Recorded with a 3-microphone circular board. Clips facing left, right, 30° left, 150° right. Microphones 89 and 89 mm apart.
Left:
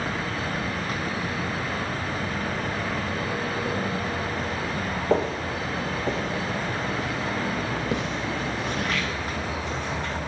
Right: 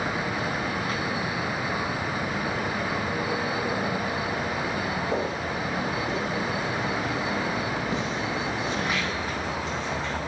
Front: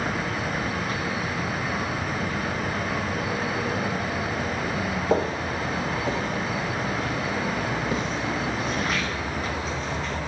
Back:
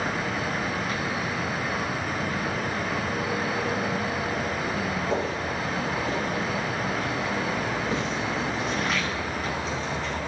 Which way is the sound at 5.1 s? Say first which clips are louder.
Left 3 dB, front 3 dB; 80° left.